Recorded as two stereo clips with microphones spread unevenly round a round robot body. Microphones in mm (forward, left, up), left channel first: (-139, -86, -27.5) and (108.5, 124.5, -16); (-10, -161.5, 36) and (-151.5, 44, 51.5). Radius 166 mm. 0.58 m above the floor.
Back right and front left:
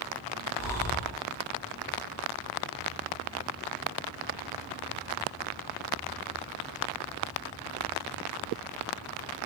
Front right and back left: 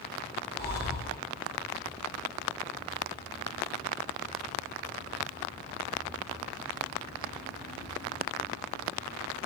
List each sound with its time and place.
0.6 s breathing: 65° right, 1.1 m